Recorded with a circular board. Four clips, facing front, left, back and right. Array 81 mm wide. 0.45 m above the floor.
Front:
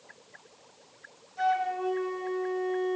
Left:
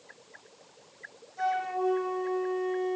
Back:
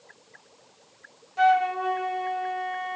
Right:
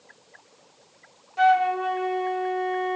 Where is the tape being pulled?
No tape being pulled in this recording.